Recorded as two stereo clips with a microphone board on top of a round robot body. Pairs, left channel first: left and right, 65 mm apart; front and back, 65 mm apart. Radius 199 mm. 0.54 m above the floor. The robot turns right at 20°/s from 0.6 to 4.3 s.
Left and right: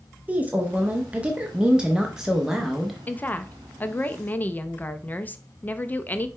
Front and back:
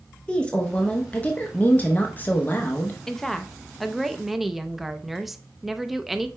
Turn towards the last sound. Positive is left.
turn(degrees=95)